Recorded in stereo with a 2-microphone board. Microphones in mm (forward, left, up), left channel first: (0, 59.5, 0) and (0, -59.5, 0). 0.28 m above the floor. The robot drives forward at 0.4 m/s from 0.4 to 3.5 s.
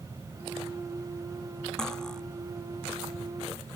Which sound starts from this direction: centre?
Cutlery clinking, at 1.8 s.